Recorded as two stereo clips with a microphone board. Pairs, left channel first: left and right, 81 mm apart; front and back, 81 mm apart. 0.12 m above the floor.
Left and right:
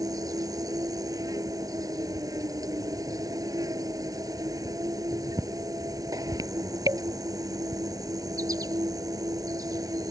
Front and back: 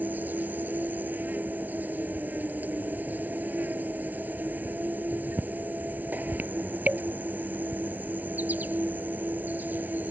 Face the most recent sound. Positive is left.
turn(degrees=-115)